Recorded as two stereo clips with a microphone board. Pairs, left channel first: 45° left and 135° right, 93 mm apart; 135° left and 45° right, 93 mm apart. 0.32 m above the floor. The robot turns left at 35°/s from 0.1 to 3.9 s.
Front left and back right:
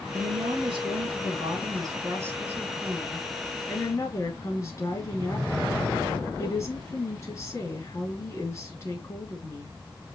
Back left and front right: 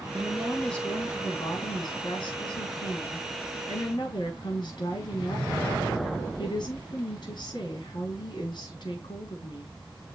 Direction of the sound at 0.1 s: 130° right.